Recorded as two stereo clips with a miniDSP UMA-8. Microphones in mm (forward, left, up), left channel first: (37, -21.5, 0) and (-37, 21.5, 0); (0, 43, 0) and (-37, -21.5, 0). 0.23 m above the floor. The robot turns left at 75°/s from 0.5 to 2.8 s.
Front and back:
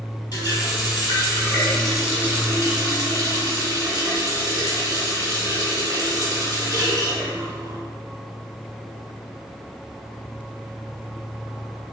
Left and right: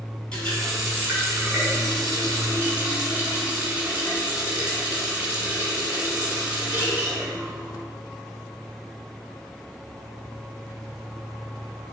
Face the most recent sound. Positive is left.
turn(degrees=175)